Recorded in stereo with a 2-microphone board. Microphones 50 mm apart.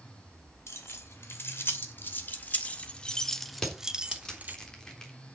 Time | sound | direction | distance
0.7 | keys jangling | 60° left (ahead or behind) | 2.5 m
3.6 | crushing | 10° left (ahead or behind) | 3.5 m